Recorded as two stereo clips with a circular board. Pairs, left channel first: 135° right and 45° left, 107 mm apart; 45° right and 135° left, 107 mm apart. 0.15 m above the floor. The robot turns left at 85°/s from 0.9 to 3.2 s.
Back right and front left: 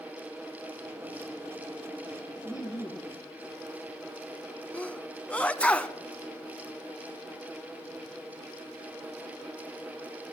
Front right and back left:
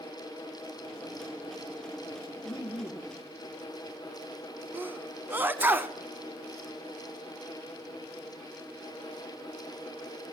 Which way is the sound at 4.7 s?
170° left.